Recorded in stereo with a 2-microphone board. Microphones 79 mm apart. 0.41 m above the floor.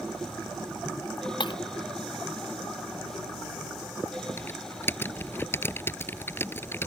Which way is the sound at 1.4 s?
65° left (ahead or behind).